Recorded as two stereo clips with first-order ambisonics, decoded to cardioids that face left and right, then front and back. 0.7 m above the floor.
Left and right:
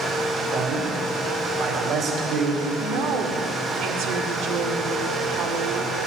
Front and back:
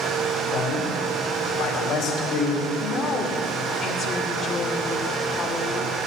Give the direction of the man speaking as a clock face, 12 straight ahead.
2 o'clock.